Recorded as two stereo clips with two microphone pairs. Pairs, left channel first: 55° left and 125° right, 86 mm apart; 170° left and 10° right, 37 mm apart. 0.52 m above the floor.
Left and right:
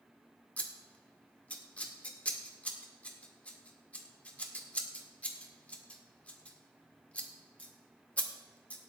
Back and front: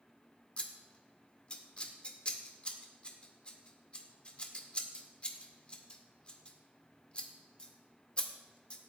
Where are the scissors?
125° left, 1.7 m.